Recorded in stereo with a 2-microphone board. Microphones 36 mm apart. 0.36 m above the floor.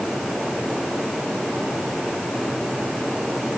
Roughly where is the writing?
I don't hear writing.